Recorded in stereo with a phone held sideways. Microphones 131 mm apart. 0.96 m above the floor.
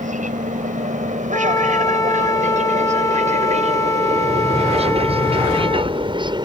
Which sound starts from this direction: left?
A flute, at 1.3 s.